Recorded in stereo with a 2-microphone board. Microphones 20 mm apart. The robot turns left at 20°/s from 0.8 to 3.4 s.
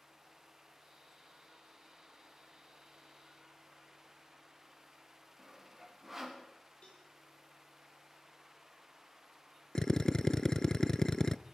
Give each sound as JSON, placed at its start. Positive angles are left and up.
{"t": 5.4, "sound": "sawing", "side_deg": -10, "distance_m": 6.0}
{"t": 6.8, "sound": "a cowbell", "side_deg": 75, "distance_m": 5.0}
{"t": 9.8, "sound": "a drill", "side_deg": 35, "distance_m": 0.6}